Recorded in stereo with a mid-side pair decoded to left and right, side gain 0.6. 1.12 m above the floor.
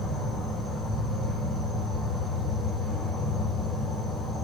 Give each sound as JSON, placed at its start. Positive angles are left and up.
{"t": 0.0, "sound": "an insect", "azimuth_deg": -15, "distance_m": 3.5}